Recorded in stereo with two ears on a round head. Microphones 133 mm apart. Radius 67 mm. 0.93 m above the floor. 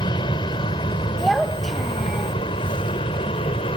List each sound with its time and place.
0.0 s an aircraft: 30° left (ahead or behind); by 3.8 s 35° left (ahead or behind)
1.2 s a child speaking: centre (ahead or behind)